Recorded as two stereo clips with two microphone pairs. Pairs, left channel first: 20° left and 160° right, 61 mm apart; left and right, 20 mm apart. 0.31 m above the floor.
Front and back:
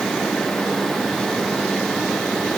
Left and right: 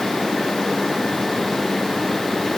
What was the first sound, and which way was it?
Only background noise.